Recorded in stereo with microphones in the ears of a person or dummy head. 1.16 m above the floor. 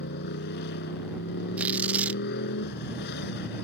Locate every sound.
0.0 s a motorcycle: 60° left (ahead or behind)
1.6 s tearing paper: 10° right (ahead or behind)